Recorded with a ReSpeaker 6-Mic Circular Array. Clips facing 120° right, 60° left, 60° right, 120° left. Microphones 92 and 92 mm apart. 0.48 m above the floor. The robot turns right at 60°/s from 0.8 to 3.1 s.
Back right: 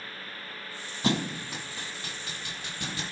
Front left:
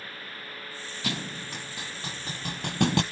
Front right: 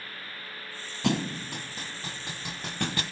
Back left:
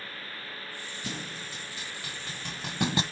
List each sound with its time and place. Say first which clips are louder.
1.0 s a thud: back right 7 dB, front right 13 dB; 65° right, 0.9 m; by 3.0 s 55° left, 0.9 m